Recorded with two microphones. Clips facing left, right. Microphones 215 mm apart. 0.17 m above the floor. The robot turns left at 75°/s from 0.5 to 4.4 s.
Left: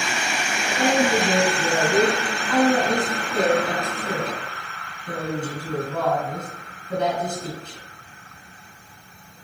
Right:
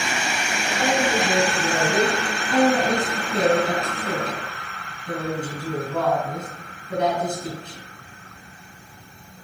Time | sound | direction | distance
0.7 | a woman speaking | 105° left | 1.8 m